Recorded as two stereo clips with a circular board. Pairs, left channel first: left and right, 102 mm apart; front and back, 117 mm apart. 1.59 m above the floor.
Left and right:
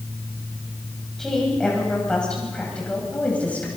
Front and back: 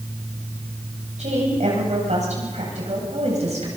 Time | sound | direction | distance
1.2 | a woman speaking | 175° left | 8.5 m